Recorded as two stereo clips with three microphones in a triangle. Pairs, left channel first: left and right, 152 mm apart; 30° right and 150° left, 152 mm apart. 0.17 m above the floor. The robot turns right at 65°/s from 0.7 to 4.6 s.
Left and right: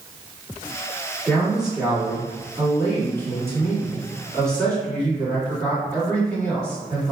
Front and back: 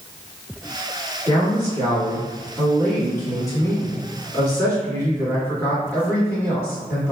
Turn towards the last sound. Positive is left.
turn(degrees=20)